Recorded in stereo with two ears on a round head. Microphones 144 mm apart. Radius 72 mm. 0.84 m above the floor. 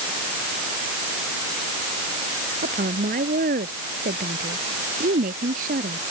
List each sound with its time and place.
2.6 s a woman speaking: 60° right (ahead or behind)